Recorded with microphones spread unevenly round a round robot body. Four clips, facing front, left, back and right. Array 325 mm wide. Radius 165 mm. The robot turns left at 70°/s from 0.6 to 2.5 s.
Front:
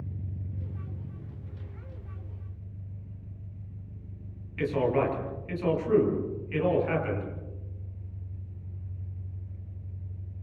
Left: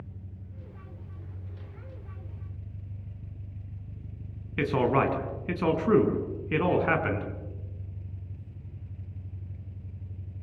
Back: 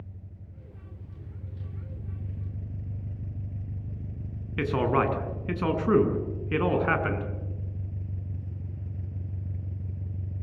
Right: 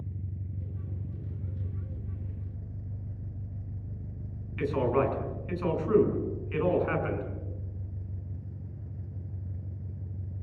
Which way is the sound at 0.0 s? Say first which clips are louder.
Right 5 dB, front 8 dB; 35° right.